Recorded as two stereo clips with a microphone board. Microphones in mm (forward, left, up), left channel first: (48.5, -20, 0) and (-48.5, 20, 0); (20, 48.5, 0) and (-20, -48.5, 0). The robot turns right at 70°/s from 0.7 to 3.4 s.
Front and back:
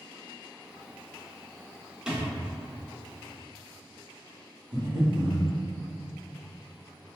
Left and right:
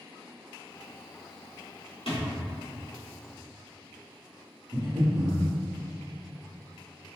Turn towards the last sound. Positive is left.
turn(degrees=-160)